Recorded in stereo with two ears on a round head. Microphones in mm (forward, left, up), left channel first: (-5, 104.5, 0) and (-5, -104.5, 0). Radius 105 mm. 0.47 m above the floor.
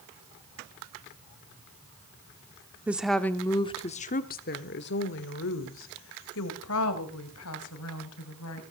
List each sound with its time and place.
2.9 s a woman speaking: 5° right (ahead or behind), 0.8 m; by 8.6 s 70° left (ahead or behind), 3 m